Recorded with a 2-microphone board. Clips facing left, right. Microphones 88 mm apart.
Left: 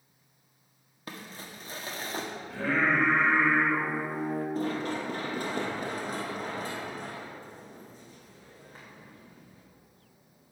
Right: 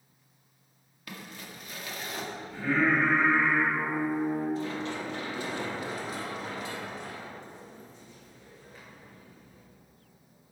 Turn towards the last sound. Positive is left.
turn(degrees=40)  # may be behind; listen again after turning